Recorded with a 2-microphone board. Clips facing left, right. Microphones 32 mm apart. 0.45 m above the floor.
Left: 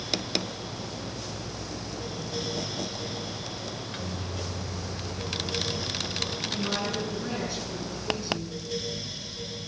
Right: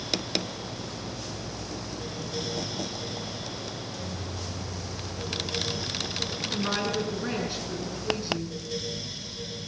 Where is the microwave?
55° left (ahead or behind), 1.8 m.